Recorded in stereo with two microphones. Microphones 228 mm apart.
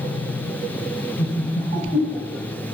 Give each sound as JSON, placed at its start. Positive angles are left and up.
{"t": 1.2, "sound": "laughter", "side_deg": 30, "distance_m": 1.5}